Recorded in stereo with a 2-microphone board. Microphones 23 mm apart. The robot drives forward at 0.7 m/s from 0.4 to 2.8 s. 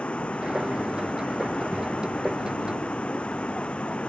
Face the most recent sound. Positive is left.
turn(degrees=60)  # may be behind; listen again after turning